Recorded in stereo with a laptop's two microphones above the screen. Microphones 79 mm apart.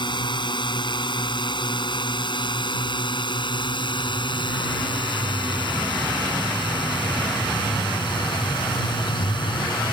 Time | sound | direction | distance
0.0 | a drone | 80° left | ?